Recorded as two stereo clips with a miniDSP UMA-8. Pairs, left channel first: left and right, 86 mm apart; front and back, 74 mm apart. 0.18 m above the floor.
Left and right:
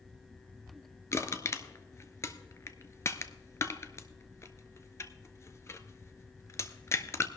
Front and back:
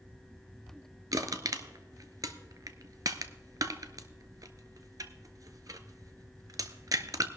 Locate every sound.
1.1 s crushing: 145° left, 0.7 m